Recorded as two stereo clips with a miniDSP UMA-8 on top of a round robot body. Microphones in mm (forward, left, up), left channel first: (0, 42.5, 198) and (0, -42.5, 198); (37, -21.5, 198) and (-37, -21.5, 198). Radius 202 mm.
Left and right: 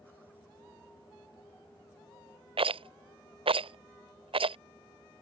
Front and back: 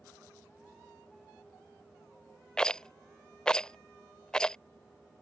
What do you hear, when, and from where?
2.6 s a rattle: 80° right